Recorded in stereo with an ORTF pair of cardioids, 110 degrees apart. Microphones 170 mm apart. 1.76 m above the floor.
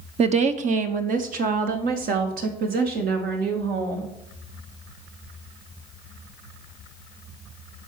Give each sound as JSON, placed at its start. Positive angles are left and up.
{"t": 0.2, "sound": "a woman speaking", "azimuth_deg": -40, "distance_m": 1.2}